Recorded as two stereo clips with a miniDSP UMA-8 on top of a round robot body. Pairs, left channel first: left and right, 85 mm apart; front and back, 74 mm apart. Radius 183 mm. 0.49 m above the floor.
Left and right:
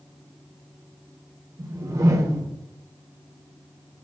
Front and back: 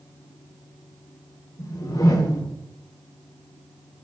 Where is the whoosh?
40° right, 1.2 m.